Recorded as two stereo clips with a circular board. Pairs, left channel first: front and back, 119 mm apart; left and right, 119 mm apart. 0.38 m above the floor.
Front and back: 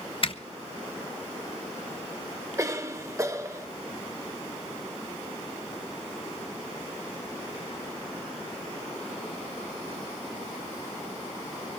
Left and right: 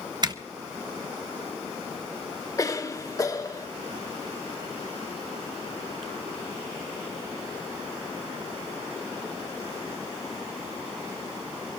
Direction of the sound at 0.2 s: 40° right.